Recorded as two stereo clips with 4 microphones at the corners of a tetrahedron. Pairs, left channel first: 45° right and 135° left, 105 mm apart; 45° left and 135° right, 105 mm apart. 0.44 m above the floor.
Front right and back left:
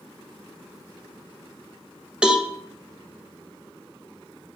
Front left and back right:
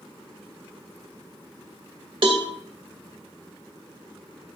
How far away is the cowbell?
About 1.6 m.